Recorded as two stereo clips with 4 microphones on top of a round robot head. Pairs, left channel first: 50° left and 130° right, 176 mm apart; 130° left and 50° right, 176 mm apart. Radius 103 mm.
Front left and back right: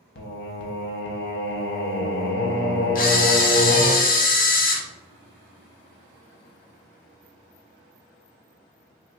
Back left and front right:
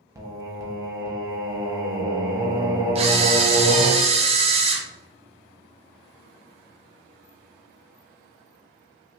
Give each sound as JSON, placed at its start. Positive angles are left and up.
{"t": 0.1, "sound": "singing", "azimuth_deg": 25, "distance_m": 0.7}
{"t": 3.0, "sound": "a camera shutter", "azimuth_deg": 5, "distance_m": 0.6}